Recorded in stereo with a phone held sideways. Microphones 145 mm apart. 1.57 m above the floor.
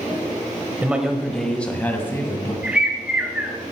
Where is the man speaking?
10° right (ahead or behind), 1.6 m; by 2.5 s 20° left (ahead or behind), 3 m.